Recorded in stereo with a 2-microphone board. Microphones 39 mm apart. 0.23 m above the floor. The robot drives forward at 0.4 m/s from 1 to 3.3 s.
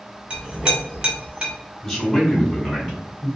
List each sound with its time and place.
0.3 s a clink: 25° right (ahead or behind), 1.1 m; by 1.5 s 20° right (ahead or behind), 1.2 m
1.8 s a man speaking: 10° left (ahead or behind), 1.2 m; by 3.3 s 5° left (ahead or behind), 1.6 m